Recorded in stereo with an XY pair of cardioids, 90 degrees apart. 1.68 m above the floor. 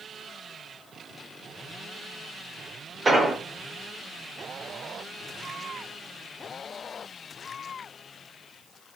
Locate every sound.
3.0 s an explosion: 35° right, 1.2 m